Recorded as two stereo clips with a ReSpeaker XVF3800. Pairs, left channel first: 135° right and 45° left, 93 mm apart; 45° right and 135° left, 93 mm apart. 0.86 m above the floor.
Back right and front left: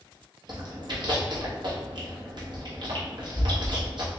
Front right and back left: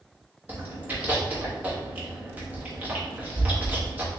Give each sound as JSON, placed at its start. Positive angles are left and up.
{"t": 0.5, "sound": "chewing", "azimuth_deg": 65, "distance_m": 1.1}